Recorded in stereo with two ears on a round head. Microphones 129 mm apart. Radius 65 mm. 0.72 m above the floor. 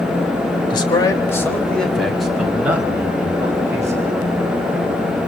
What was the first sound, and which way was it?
A man speaking, 30° left (ahead or behind).